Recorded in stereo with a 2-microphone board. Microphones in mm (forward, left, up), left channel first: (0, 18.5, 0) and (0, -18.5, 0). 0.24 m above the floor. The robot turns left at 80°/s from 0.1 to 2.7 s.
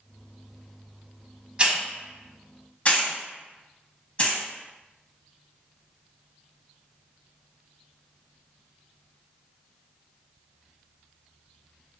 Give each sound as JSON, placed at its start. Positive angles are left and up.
{"t": 1.6, "sound": "a hiss", "side_deg": -30, "distance_m": 0.8}